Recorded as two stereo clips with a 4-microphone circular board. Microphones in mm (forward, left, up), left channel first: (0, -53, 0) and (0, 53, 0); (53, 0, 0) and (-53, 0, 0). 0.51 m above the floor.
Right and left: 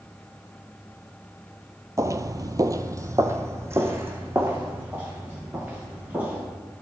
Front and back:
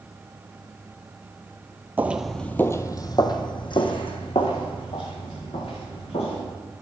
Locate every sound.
2.0 s footsteps: 125° left, 0.6 m; by 6.4 s 20° left, 3 m